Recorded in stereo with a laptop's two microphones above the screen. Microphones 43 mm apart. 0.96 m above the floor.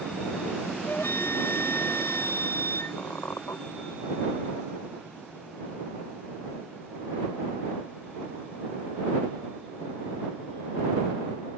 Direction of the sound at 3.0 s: 85° left.